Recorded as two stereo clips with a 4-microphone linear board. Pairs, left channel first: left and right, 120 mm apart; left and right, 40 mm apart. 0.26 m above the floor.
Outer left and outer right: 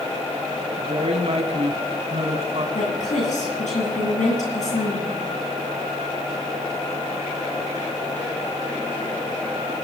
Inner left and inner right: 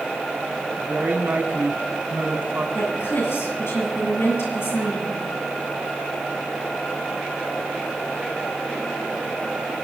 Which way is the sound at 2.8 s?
75° left (ahead or behind).